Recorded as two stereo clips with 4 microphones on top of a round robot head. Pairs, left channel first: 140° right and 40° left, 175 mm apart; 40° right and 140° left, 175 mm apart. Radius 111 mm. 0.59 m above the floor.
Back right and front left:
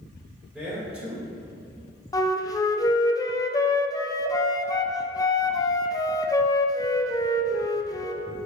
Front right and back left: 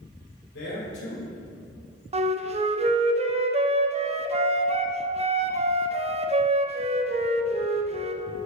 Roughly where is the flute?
Behind.